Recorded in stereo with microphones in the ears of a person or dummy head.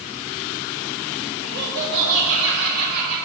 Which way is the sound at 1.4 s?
40° right (ahead or behind).